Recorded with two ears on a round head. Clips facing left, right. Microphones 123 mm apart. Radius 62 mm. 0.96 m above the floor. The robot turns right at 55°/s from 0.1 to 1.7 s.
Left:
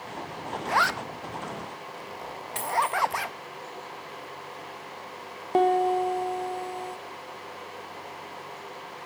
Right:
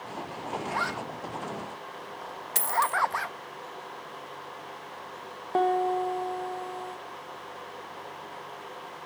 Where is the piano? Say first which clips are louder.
Left 3 dB; 20° left (ahead or behind), 0.7 m.